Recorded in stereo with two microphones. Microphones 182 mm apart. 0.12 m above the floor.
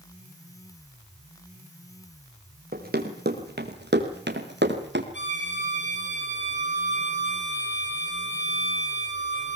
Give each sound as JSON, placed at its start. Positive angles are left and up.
{"t": 2.7, "sound": "running footsteps", "side_deg": -55, "distance_m": 4.0}
{"t": 5.1, "sound": "a violin", "side_deg": 75, "distance_m": 5.5}